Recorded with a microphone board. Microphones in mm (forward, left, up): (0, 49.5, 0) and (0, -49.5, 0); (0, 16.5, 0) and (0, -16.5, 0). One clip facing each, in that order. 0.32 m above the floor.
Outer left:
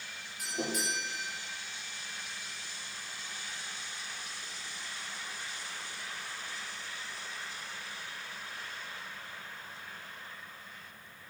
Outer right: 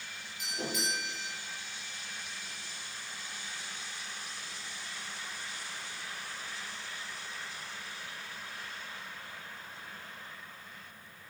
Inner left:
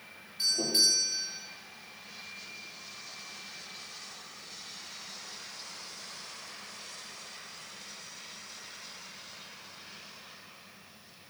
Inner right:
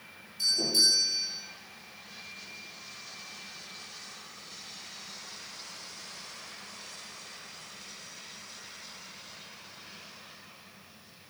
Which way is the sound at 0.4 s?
50° left (ahead or behind).